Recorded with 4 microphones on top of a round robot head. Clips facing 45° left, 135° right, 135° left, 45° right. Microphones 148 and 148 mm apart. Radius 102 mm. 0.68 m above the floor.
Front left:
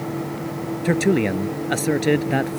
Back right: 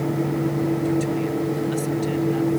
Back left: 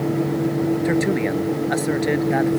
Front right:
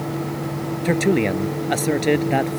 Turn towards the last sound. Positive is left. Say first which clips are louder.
# front left 3 dB, front right 1 dB
turn(degrees=25)